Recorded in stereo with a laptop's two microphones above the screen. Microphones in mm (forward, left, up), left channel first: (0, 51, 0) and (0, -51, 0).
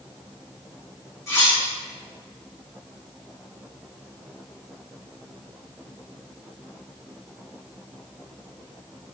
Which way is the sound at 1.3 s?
30° left (ahead or behind).